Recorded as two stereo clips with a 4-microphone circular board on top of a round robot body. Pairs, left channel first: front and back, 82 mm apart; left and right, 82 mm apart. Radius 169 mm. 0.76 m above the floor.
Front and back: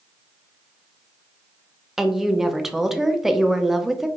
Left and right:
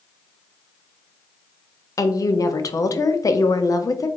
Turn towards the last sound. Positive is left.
turn(degrees=95)